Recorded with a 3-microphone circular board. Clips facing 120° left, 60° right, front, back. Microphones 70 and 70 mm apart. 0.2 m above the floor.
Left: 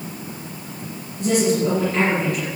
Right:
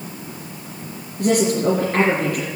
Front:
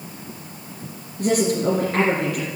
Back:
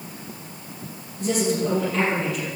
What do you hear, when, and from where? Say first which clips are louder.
1.2 s a woman speaking: right 1 dB, front 3 dB; 25° right, 3.5 m